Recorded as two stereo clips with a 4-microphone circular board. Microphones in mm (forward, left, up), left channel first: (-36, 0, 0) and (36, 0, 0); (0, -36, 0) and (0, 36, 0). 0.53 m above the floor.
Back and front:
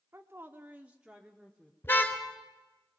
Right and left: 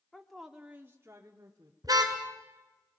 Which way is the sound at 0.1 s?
10° right.